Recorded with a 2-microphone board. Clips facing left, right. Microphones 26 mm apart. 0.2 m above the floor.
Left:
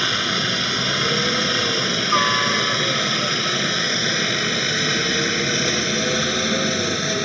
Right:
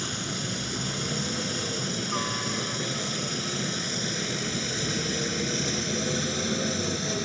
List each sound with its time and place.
0.0 s a helicopter: 55° left (ahead or behind); by 7.3 s 40° left (ahead or behind)